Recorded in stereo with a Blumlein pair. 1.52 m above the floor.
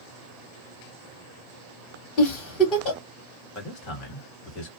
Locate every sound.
2.2 s a giggle: 30° left, 1.9 m
3.5 s a man speaking: 35° left, 1.6 m